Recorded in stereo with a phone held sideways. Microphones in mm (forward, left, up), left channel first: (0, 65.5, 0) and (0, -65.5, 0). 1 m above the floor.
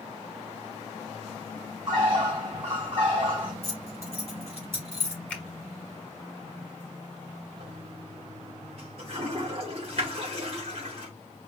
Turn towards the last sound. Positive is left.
turn(degrees=-50)  # may be behind; listen again after turning